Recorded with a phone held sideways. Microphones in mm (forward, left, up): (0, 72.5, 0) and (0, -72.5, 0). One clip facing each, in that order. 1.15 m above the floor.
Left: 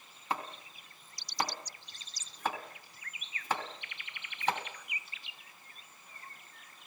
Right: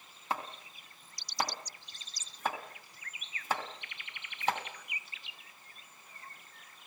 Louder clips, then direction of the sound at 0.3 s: Even; 5° right (ahead or behind).